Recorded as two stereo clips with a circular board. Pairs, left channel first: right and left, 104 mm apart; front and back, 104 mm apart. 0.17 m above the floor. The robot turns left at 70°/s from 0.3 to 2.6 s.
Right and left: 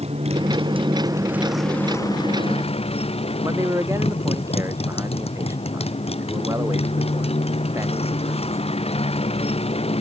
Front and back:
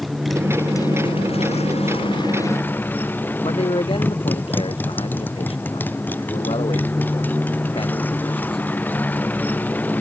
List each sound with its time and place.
0.0 s a motorcycle: 90° left; by 10.0 s 75° right
3.4 s a man speaking: 30° left